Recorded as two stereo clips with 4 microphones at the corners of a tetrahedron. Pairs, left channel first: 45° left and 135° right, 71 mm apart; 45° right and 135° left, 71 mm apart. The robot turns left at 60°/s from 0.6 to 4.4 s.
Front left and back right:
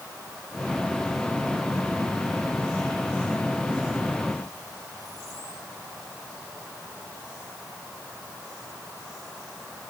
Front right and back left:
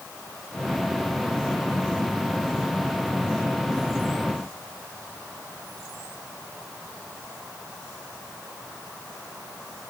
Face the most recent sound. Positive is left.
No sound to turn to.